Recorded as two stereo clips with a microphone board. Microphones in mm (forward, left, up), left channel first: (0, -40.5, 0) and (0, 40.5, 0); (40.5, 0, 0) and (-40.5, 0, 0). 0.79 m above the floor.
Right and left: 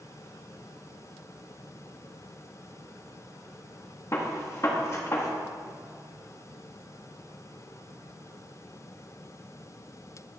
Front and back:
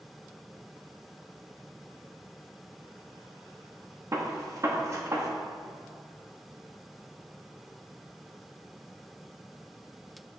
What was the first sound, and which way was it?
A gunshot, 135° right.